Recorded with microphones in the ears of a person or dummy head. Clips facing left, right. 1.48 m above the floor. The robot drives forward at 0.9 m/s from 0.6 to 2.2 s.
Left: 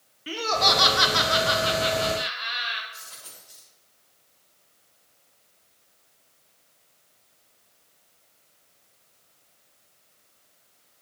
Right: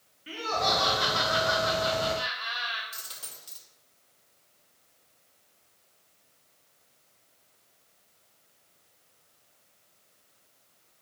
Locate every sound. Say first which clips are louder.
0.3 s laughter: left 4 dB; 60° left (ahead or behind), 0.7 m; by 2.8 s 25° left (ahead or behind), 1.4 m
2.9 s a dropped coin: even; 75° right (ahead or behind), 2.5 m